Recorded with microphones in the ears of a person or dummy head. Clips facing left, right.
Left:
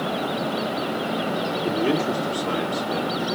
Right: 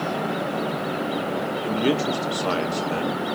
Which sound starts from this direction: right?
A man speaking, at 1.6 s.